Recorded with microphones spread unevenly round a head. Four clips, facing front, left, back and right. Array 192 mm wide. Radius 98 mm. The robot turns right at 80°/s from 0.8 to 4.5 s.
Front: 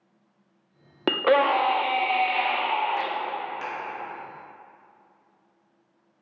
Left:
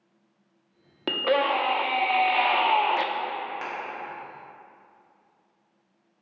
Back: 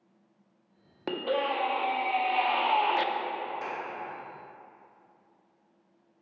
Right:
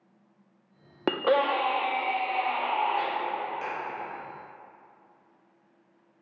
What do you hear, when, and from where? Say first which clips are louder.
1.1 s a scream: even, front 9 dB; 30° right, 0.6 m; by 3.1 s 130° left, 0.6 m
3.6 s a clap: even, front 2 dB; 45° left, 1.7 m; by 3.8 s 55° left, 1.7 m